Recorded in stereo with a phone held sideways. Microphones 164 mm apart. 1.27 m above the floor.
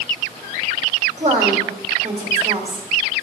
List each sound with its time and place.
1.2 s a woman speaking: 50° right (ahead or behind), 3 m